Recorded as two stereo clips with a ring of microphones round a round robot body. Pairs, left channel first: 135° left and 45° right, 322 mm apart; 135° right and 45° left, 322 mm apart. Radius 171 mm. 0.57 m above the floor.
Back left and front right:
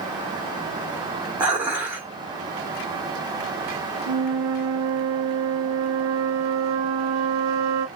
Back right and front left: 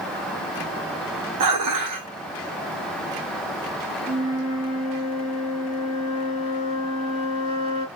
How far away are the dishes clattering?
About 1.1 m.